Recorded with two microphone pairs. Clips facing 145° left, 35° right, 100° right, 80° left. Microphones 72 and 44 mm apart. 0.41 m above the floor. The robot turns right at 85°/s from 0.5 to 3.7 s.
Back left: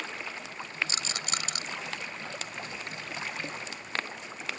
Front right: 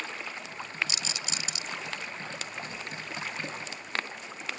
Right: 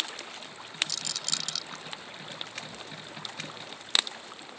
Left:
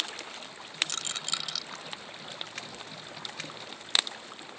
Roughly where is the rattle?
Left.